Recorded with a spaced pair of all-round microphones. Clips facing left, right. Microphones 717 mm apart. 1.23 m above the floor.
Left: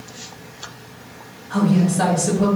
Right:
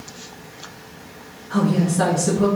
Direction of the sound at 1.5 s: 20° right (ahead or behind).